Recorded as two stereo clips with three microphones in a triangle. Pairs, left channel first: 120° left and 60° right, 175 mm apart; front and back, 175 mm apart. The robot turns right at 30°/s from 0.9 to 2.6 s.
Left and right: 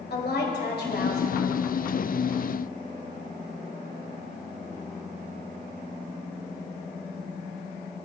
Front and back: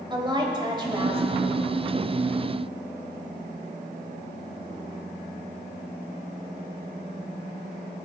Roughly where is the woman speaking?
Behind left.